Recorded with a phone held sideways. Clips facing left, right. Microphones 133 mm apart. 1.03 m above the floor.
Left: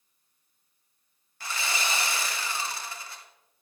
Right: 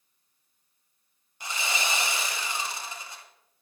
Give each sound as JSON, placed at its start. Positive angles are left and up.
{"t": 1.4, "sound": "sawing", "side_deg": -20, "distance_m": 1.4}